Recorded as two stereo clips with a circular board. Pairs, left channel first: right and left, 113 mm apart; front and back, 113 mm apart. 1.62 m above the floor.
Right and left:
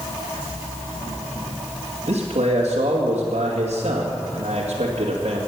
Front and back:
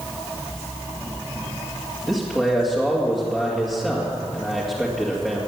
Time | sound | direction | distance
2.1 | a man speaking | 85° left | 2 m